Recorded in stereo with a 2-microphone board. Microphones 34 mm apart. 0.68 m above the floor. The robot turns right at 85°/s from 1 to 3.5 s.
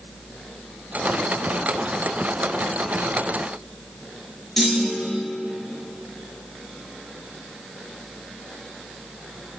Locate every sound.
4.6 s a clunk: 5° left (ahead or behind), 2.5 m